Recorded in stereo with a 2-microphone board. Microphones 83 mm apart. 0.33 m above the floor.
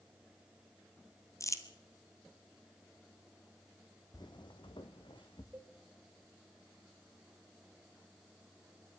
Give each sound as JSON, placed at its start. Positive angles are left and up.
{"t": 1.4, "sound": "crumpling", "side_deg": 40, "distance_m": 1.8}
{"t": 4.1, "sound": "footsteps", "side_deg": 50, "distance_m": 1.0}
{"t": 5.5, "sound": "a cowbell", "side_deg": -25, "distance_m": 3.5}